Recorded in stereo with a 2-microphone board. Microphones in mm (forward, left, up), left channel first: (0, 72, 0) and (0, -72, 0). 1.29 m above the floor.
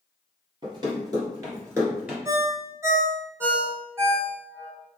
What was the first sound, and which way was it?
Running footsteps, 30° right (ahead or behind).